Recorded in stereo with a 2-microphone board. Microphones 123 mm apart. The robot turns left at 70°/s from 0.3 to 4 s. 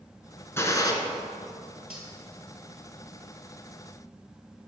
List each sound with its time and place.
0.6 s a gunshot: 20° left (ahead or behind), 0.9 m; by 0.9 s 30° left (ahead or behind), 0.9 m
1.9 s cutlery clinking: 10° right (ahead or behind), 1.8 m; by 2.1 s centre (ahead or behind), 1.8 m